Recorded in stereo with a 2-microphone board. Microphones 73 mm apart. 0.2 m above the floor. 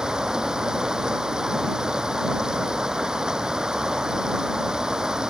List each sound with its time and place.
0.0 s running water: 10° right (ahead or behind)